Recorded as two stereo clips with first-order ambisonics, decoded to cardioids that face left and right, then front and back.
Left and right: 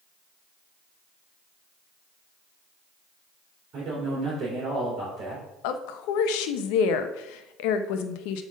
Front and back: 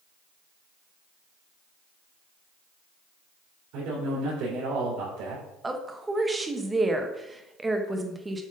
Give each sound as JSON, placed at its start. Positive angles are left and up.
{"t": 3.7, "sound": "a man speaking", "azimuth_deg": -150, "distance_m": 3.0}
{"t": 5.6, "sound": "a woman speaking", "azimuth_deg": 100, "distance_m": 0.8}